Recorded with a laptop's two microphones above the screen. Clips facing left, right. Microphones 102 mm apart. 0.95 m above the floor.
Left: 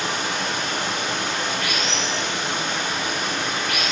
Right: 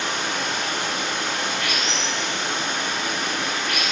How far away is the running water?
About 1.3 m.